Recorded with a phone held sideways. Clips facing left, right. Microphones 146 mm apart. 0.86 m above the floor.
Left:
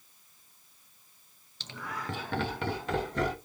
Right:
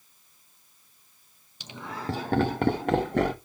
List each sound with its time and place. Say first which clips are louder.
1.6 s laughter: right 4 dB; 10° right (ahead or behind), 0.9 m; by 3.4 s 60° right (ahead or behind), 1.7 m